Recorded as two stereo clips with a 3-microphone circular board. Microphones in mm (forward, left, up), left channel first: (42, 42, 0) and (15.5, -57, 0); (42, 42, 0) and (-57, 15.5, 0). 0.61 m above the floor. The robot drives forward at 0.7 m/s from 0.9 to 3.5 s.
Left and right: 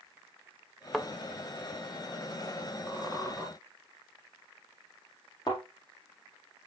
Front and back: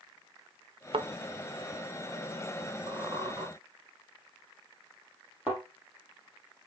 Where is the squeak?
155° left, 2.5 m; by 3.5 s 160° left, 3 m.